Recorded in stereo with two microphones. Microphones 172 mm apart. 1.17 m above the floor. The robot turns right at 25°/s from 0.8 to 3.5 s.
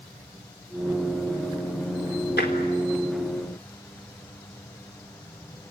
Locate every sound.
2.4 s tapping: 75° left (ahead or behind), 4 m